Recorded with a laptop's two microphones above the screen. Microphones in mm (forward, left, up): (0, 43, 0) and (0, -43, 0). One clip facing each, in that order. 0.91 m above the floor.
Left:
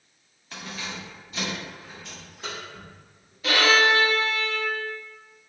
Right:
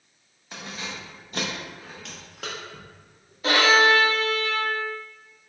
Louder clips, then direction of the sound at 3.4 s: Right 2 dB; 35° right (ahead or behind).